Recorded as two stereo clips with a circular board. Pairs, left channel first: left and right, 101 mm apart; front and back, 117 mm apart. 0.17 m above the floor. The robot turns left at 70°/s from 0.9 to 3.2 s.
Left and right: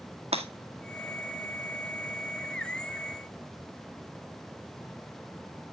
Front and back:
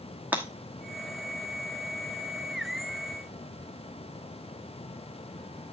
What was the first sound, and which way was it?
Breaking glass, 100° right.